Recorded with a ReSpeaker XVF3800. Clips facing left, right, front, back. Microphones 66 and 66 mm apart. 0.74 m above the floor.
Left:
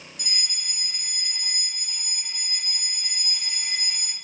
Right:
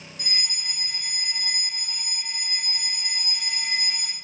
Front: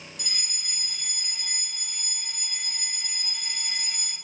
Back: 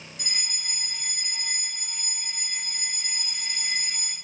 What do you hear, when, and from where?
0.2 s a fire alarm: 135° right, 3 m